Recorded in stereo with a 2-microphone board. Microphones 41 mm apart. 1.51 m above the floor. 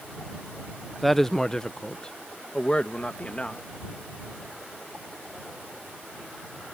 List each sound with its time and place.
1.0 s a woman speaking: centre (ahead or behind); by 3.7 s 30° left (ahead or behind)